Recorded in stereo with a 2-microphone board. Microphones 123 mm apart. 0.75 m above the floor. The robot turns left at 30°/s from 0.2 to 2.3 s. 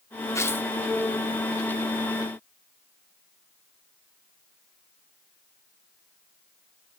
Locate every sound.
0.3 s tearing paper: 25° left (ahead or behind), 0.6 m; by 0.7 s 15° left (ahead or behind), 0.6 m